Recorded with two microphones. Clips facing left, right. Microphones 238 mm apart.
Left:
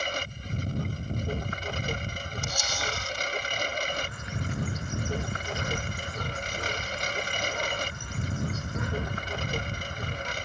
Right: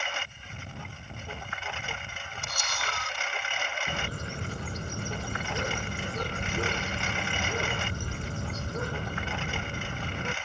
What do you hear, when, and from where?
0.0 s a lawn mower: 40° left (ahead or behind)
2.4 s a camera shutter: 60° right (ahead or behind)
3.9 s a bird: 40° right (ahead or behind)